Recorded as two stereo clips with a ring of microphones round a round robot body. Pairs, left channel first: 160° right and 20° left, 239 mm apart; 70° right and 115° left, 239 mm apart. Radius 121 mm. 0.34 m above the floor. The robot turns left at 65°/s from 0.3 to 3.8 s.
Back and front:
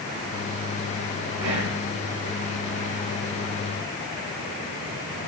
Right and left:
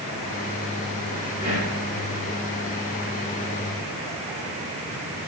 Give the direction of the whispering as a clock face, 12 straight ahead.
11 o'clock.